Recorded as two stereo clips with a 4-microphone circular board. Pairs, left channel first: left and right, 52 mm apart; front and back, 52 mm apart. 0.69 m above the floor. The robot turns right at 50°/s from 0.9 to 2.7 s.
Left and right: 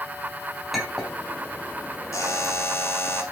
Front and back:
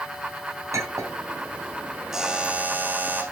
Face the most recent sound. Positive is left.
turn(degrees=125)